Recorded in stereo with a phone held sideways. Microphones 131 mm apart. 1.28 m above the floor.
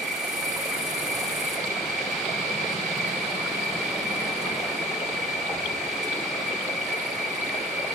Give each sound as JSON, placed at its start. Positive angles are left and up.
{"t": 0.0, "sound": "an insect", "side_deg": 0, "distance_m": 3.0}